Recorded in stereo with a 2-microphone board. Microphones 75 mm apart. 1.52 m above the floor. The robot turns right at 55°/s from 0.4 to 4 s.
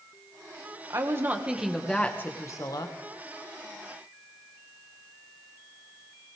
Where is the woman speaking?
45° right, 1.6 m; by 3.0 s 65° left, 1.6 m.